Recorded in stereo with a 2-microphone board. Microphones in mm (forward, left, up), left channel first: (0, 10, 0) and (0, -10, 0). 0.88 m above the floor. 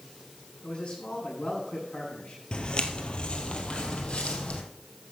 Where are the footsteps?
50° left (ahead or behind), 1.2 m; by 4.6 s 65° left (ahead or behind), 2 m.